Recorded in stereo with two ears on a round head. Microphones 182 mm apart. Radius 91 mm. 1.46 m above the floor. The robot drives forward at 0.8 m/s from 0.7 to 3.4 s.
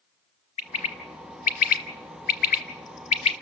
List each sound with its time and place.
0.6 s a bird: 30° left (ahead or behind), 1.5 m